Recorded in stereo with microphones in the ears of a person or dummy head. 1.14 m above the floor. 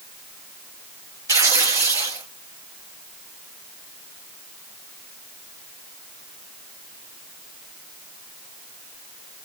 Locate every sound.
1.3 s tearing paper: 15° right (ahead or behind), 2.0 m